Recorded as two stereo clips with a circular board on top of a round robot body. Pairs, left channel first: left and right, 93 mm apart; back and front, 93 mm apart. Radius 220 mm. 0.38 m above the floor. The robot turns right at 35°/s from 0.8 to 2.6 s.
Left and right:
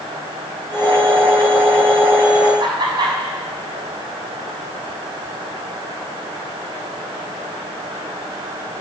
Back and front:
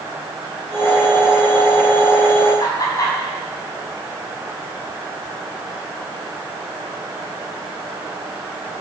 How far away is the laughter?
About 6 m.